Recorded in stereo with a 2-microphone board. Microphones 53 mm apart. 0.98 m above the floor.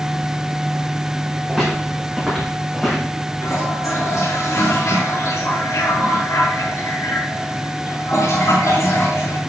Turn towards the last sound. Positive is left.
turn(degrees=80)